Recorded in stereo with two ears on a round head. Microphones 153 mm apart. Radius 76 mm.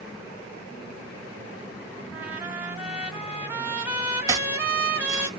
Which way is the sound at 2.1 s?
10° right (ahead or behind).